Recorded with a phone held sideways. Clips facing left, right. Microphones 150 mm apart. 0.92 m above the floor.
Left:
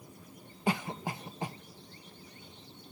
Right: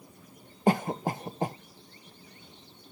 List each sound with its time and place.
0.7 s a cough: 45° right (ahead or behind)